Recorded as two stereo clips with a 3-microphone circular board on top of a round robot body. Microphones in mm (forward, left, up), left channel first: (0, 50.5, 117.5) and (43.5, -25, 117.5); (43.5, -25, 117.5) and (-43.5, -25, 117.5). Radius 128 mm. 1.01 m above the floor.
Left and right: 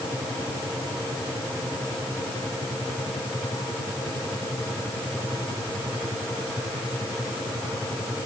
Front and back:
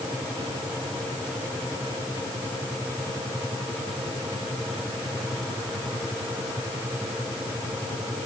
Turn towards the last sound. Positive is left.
No sound to turn to.